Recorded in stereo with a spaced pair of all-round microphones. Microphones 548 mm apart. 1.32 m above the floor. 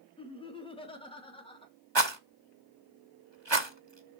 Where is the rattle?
50° right (ahead or behind), 1.1 m.